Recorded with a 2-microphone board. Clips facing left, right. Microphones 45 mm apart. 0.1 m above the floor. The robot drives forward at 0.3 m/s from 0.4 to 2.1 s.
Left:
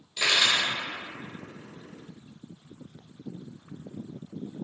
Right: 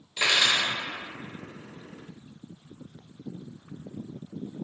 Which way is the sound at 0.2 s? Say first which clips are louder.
Right 1 dB; 30° right (ahead or behind).